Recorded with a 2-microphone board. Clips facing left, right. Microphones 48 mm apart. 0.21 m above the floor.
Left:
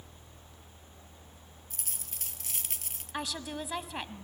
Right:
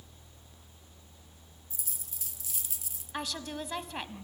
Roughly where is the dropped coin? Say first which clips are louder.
Left 3 dB; left.